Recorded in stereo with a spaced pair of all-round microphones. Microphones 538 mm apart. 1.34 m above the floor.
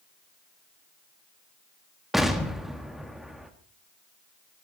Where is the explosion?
Centre (ahead or behind), 1.7 m.